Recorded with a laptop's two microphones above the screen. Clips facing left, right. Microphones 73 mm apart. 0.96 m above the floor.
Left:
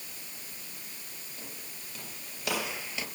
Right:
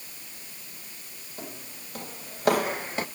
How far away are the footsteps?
About 2 m.